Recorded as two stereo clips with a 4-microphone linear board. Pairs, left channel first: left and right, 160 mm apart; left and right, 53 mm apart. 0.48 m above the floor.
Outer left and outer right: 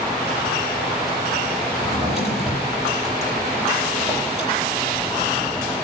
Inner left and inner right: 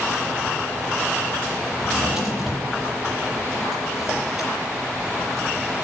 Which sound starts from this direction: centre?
A drawer, at 1.8 s.